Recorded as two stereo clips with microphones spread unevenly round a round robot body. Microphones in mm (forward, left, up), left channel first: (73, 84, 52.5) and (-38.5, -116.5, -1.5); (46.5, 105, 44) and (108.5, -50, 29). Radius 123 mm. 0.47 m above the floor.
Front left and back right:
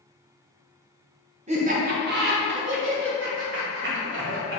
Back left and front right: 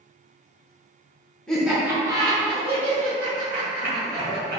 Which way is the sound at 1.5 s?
160° right.